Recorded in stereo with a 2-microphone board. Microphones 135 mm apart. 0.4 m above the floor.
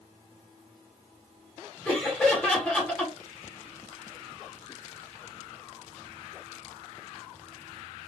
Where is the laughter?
10° left (ahead or behind), 1.3 m.